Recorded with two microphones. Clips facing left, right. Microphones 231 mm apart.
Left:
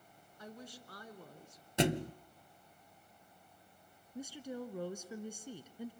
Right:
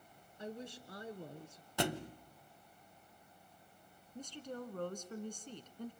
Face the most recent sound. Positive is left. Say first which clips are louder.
# left 3 dB
turn(degrees=10)  # may be behind; listen again after turning